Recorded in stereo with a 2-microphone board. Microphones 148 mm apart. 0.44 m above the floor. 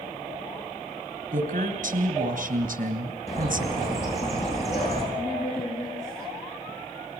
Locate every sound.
1.3 s a woman speaking: 65° right (ahead or behind), 3 m
3.3 s a bird: 45° left (ahead or behind), 9.5 m
5.2 s a woman speaking: 50° left (ahead or behind), 9.5 m